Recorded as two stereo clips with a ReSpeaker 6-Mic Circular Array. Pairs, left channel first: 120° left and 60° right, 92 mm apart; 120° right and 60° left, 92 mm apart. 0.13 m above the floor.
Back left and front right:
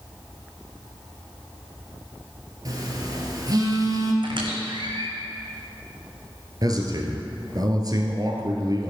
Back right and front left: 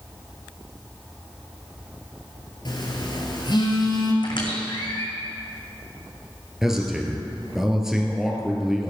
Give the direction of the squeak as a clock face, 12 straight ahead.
3 o'clock.